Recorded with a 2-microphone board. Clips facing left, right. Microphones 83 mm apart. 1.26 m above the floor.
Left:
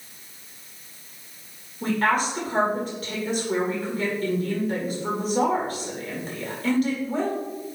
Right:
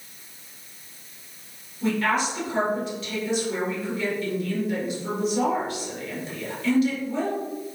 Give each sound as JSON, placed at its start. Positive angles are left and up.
{"t": 1.8, "sound": "a woman speaking", "side_deg": 45, "distance_m": 5.0}